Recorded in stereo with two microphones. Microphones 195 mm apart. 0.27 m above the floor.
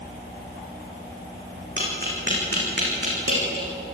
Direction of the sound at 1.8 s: 65° right (ahead or behind).